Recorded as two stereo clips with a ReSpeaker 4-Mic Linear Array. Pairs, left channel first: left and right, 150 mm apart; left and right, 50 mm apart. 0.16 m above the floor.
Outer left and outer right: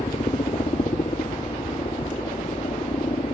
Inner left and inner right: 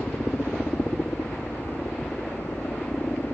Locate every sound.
0.0 s a helicopter: 40° left (ahead or behind)